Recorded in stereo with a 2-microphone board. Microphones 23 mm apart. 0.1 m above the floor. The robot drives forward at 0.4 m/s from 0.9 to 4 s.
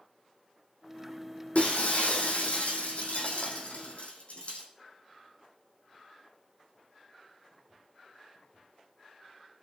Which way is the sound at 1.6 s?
75° left (ahead or behind).